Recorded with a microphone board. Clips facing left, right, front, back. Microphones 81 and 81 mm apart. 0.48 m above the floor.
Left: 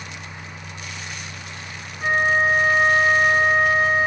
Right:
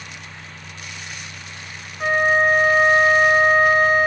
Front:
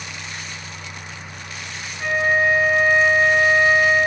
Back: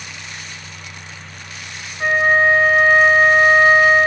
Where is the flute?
120° right, 0.9 m.